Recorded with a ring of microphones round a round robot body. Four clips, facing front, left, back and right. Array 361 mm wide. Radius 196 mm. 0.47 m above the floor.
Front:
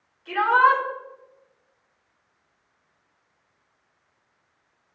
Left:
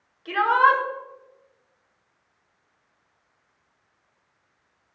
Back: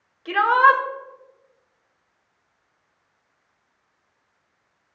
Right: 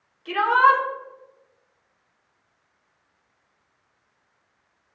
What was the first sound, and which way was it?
A shout, 170° left.